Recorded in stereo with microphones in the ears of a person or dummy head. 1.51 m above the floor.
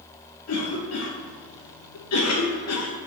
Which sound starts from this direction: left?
A cough, at 0.5 s.